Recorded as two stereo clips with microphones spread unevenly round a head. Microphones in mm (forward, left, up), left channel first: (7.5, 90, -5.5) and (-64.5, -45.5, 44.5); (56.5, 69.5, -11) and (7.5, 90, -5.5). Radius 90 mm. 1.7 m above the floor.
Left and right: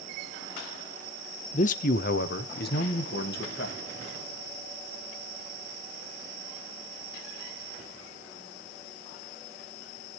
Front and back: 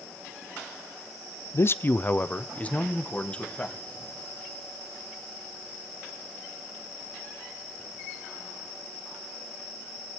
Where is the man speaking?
15° left, 0.5 m; by 3.8 s 45° left, 2.5 m.